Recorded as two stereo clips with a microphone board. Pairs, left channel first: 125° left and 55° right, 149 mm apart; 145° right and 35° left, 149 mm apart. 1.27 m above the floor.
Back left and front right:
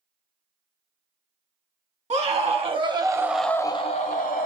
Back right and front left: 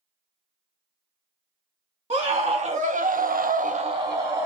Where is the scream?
15° right, 1.3 m; by 4.5 s 110° left, 0.8 m.